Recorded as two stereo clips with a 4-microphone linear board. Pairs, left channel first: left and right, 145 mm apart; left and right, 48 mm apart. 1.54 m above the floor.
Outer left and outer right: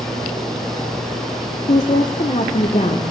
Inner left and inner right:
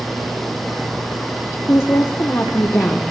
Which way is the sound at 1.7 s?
60° left (ahead or behind).